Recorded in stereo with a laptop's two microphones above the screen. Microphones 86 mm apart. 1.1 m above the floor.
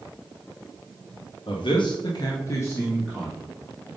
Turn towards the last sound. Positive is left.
turn(degrees=5)  # may be behind; listen again after turning